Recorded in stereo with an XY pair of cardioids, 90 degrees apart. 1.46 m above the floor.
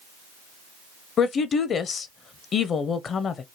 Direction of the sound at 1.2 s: 60° left.